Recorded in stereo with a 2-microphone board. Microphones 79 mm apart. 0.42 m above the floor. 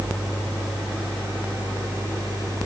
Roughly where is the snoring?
I don't hear snoring.